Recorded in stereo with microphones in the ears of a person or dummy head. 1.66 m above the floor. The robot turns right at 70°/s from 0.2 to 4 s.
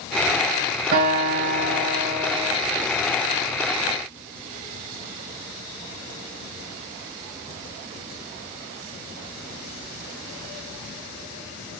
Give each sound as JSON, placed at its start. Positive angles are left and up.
{"t": 0.9, "sound": "a guitar", "azimuth_deg": -120, "distance_m": 3.0}